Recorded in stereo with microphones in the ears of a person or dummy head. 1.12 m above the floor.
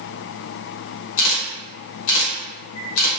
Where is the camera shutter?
85° left, 1.0 m.